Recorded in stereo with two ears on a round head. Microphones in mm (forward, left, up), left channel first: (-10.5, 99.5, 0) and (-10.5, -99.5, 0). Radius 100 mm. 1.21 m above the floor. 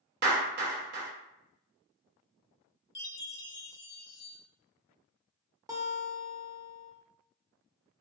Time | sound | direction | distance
0.2 | a clap | 50° right (ahead or behind) | 0.7 m
3.0 | a chime | 55° left (ahead or behind) | 0.8 m
5.7 | a guitar | 15° right (ahead or behind) | 0.6 m